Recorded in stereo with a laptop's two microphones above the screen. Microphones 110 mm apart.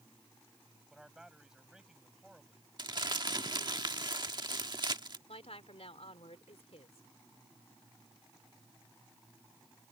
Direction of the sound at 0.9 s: 5° right (ahead or behind).